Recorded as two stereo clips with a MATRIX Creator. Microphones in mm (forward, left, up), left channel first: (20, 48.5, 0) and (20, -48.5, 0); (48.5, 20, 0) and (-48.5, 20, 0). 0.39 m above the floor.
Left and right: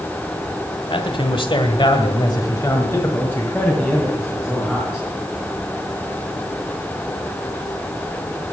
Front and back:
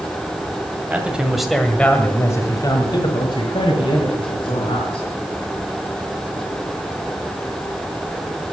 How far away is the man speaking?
About 1.9 m.